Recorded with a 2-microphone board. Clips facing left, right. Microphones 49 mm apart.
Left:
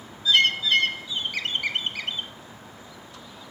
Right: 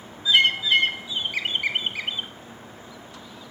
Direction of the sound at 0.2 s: 15° right (ahead or behind).